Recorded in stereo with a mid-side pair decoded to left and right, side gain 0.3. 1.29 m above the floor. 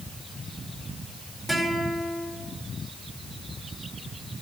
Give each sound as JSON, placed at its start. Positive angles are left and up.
{"t": 1.5, "sound": "a guitar", "azimuth_deg": 0, "distance_m": 5.0}